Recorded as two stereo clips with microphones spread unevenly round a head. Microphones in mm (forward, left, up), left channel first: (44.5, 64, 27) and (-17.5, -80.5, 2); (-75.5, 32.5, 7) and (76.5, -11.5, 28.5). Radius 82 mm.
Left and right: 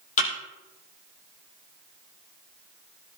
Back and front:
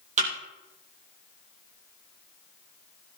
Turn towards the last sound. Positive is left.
turn(degrees=25)